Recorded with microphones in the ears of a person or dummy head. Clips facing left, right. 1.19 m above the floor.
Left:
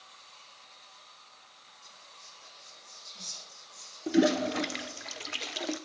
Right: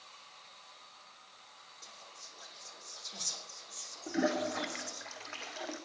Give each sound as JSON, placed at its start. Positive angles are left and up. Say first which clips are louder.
{"t": 1.8, "sound": "whispering", "louder": "right 3 dB", "side_deg": -75, "distance_m": 3.0}
{"t": 4.1, "sound": "a toilet flushing", "louder": "left 7 dB", "side_deg": 40, "distance_m": 0.9}